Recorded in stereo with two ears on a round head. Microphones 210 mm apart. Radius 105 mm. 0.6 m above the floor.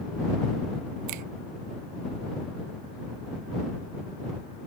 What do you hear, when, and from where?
1.1 s a finger snap: 85° right